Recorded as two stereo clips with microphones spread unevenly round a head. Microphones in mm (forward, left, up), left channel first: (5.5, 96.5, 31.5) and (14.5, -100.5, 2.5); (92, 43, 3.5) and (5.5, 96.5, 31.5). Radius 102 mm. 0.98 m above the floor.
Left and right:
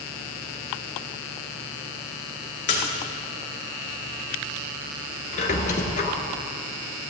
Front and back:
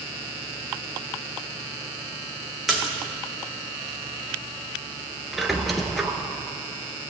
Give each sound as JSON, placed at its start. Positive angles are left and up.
{"t": 2.7, "sound": "a splash", "azimuth_deg": 60, "distance_m": 2.5}
{"t": 5.3, "sound": "a squeak", "azimuth_deg": 80, "distance_m": 1.2}